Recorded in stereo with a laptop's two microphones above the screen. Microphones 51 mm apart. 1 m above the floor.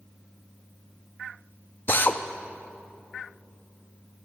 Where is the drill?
45° left (ahead or behind), 0.5 m.